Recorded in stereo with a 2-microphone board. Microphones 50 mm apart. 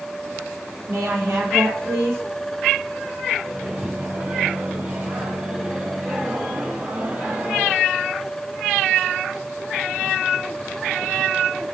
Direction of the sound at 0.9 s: 60° right (ahead or behind).